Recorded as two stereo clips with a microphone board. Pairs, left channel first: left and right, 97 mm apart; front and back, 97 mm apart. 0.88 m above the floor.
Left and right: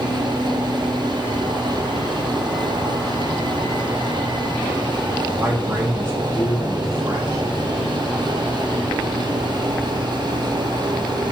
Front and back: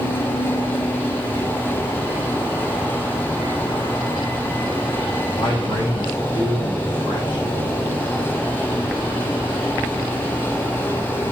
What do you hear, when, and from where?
5.4 s a man speaking: 20° right, 4.5 m; by 7.5 s 30° right, 5.5 m